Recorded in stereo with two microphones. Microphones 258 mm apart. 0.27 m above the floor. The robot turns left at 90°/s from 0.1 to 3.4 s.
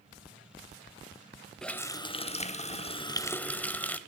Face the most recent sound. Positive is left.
turn(degrees=5)  # may be behind; listen again after turning